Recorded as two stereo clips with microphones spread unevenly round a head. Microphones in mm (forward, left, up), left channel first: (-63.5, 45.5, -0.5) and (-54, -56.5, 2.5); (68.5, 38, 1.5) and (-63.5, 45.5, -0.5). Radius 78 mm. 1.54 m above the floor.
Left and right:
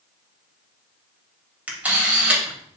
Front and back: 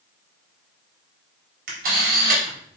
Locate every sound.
1.7 s a camera shutter: 160° right, 3.5 m